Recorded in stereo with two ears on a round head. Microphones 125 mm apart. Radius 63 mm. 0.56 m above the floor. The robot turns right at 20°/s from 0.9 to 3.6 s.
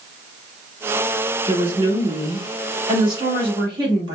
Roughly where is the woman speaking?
Right.